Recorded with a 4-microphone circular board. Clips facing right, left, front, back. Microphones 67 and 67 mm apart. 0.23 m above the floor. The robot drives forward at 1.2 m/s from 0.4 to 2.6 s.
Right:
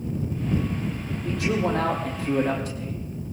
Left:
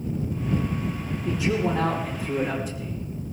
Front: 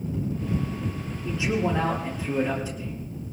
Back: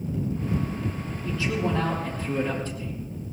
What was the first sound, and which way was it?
A man speaking, 65° right.